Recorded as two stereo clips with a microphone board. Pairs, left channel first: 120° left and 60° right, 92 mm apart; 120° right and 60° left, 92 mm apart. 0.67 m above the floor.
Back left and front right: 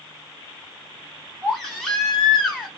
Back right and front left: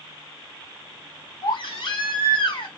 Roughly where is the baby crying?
Behind right.